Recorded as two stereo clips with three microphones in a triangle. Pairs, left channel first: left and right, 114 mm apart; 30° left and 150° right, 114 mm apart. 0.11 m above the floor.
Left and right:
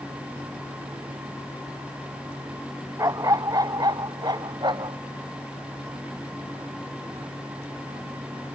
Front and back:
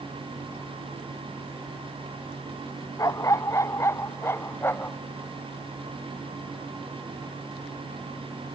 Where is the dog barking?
30° right; by 5.0 s 40° right.